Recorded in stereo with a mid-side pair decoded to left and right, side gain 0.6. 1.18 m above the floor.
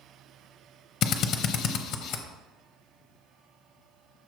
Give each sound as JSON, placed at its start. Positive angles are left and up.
{"t": 1.0, "sound": "a drill", "azimuth_deg": 55, "distance_m": 0.7}